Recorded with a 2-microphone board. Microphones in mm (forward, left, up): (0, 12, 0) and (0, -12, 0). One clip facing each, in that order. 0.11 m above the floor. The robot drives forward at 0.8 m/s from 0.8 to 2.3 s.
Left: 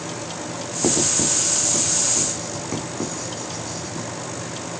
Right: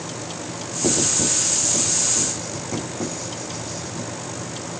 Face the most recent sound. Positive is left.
turn(degrees=25)  # may be behind; listen again after turning